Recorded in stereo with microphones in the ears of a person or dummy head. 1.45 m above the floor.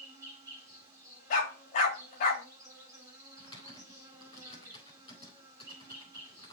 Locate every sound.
0.0 s an insect: 20° right (ahead or behind), 3.5 m
1.3 s a dog barking: 45° left (ahead or behind), 2.5 m
3.4 s typing on a keyboard: 30° left (ahead or behind), 4.5 m